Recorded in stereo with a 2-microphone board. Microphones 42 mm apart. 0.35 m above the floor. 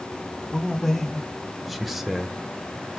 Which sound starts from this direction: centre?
A man speaking, at 0.5 s.